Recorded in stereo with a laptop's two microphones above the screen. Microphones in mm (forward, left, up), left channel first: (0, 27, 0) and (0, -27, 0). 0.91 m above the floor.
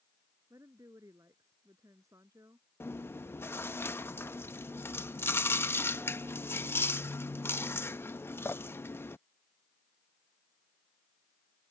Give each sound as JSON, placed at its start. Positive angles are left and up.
{"t": 0.5, "sound": "a woman speaking", "side_deg": -85}
{"t": 2.8, "sound": "chewing", "side_deg": 45}